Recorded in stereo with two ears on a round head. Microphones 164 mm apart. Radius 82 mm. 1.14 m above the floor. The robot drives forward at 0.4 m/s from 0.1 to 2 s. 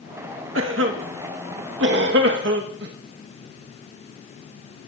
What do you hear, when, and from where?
0.6 s a cough: 75° right (ahead or behind), 1.5 m; by 2.9 s 70° right (ahead or behind), 1.6 m